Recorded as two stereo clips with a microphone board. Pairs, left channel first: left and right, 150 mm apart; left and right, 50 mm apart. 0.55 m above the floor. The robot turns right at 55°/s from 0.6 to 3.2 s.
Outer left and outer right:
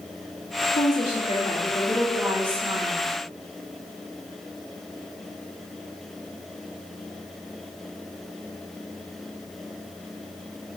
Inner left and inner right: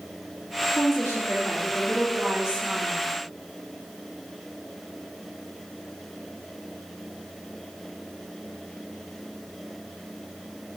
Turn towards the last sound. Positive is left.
turn(degrees=-125)